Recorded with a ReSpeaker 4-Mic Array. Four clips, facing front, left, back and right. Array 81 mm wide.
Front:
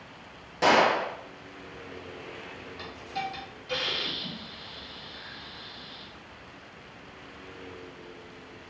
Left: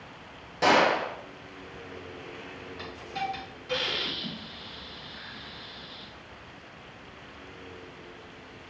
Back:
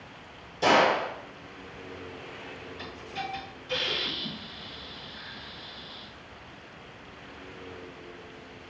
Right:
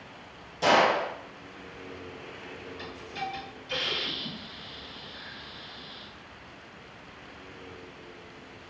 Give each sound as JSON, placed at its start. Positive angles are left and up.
{"t": 0.6, "sound": "a gunshot", "azimuth_deg": 40, "distance_m": 0.8}
{"t": 2.8, "sound": "a hiss", "azimuth_deg": 60, "distance_m": 1.2}